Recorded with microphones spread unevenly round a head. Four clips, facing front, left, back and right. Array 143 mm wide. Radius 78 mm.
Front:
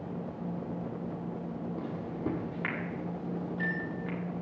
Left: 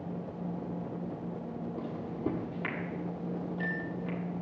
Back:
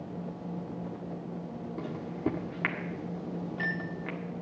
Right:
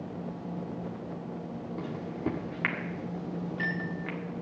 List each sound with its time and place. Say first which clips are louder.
1.8 s a microwave: right 2 dB, back 5 dB; 150° left, 1.5 m